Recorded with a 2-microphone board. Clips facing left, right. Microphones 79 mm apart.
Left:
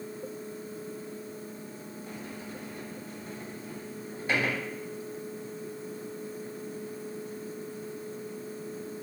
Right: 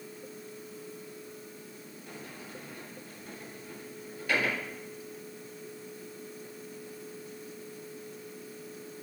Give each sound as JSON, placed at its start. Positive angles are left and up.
{"t": 2.1, "sound": "a sliding door", "side_deg": 30, "distance_m": 1.6}